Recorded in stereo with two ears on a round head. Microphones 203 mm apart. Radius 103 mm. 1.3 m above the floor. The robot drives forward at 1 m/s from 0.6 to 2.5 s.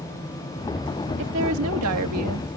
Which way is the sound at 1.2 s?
55° right (ahead or behind).